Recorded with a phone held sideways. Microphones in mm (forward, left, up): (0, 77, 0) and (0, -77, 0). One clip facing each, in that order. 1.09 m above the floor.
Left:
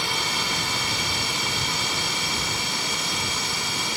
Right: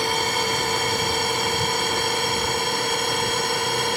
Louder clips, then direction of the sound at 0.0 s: Right 6 dB; 50° right (ahead or behind).